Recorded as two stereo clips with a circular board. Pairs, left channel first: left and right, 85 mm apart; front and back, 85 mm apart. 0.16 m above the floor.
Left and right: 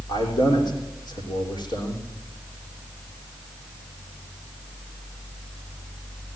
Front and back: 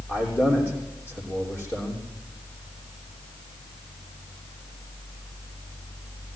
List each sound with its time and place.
0.1 s a man speaking: 60° left, 6.5 m